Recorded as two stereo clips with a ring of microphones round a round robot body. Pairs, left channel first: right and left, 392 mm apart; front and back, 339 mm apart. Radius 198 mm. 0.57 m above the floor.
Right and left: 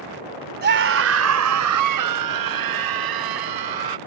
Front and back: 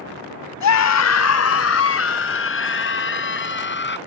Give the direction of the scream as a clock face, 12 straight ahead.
11 o'clock.